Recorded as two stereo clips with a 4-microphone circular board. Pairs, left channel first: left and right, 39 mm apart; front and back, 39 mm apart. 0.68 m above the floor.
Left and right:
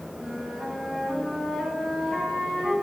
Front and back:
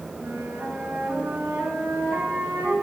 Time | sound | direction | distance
0.2 | a flute | 175° right | 5.5 m